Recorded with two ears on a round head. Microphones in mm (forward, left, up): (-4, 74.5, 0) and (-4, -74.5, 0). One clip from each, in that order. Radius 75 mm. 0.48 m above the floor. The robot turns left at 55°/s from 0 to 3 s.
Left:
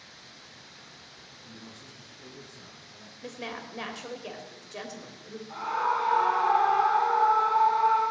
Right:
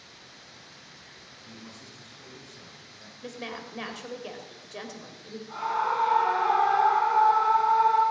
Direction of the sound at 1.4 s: 40° right.